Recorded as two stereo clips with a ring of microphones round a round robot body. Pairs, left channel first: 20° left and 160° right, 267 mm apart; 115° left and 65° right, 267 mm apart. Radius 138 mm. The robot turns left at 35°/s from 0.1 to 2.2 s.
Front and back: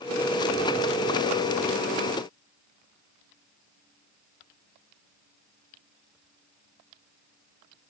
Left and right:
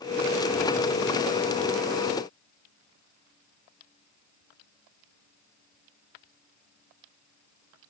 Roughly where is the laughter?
I don't hear laughter.